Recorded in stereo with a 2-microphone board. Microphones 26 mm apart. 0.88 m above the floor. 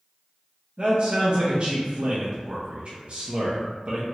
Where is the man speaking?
45° right (ahead or behind), 0.6 m.